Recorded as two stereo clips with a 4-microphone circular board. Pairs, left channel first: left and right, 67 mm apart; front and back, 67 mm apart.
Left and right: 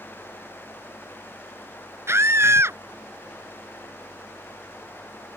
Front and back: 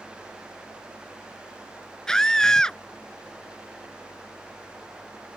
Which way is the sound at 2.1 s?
75° right.